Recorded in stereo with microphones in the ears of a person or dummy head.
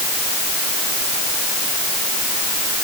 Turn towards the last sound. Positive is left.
No sound to turn to.